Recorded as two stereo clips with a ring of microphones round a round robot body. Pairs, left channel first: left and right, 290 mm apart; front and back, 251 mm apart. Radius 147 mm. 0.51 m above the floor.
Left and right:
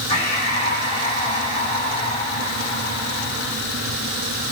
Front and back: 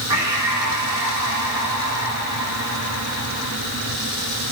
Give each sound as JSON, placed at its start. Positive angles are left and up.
{"t": 0.1, "sound": "breathing", "azimuth_deg": 160, "distance_m": 8.0}